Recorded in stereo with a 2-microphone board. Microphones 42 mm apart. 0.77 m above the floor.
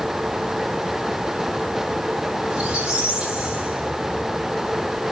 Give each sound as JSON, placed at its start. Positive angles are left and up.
{"t": 2.5, "sound": "a squeak", "side_deg": -20, "distance_m": 2.0}